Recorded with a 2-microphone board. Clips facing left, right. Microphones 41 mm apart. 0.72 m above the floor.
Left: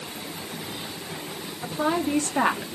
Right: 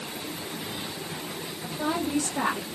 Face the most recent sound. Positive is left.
turn(degrees=35)  # may be behind; listen again after turning